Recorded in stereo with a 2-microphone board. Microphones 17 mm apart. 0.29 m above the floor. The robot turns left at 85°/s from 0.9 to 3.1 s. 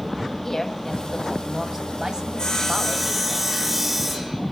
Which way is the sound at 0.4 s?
50° left.